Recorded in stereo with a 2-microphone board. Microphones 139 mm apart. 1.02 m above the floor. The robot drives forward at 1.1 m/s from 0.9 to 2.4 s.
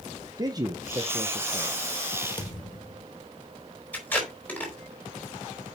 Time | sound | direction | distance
0.4 | a man speaking | 30° right (ahead or behind) | 0.8 m
2.4 | a thud | 35° left (ahead or behind) | 1.5 m
3.9 | tape being pulled | 10° left (ahead or behind) | 3.5 m